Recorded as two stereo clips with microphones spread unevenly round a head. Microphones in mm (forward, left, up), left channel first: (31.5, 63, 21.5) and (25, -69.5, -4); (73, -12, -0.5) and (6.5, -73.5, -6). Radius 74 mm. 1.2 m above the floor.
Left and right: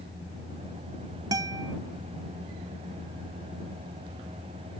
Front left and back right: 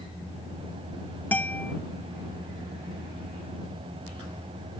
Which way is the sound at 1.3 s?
30° right.